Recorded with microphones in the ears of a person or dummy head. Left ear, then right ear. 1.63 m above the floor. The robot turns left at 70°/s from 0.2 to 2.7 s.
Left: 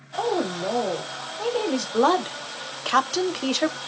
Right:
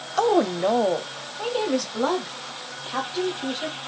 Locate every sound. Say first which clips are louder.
0.2 s a woman speaking: right 5 dB; 75° right, 0.6 m; by 3.8 s 110° left, 0.6 m